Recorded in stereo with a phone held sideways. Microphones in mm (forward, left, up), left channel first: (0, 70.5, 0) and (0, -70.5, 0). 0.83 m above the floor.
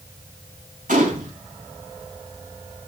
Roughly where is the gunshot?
Right.